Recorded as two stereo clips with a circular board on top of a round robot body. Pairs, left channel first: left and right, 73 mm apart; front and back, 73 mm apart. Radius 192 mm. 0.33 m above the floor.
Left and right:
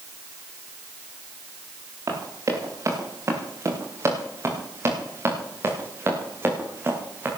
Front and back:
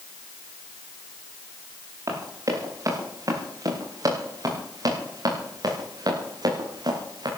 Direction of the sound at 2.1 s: 135° right.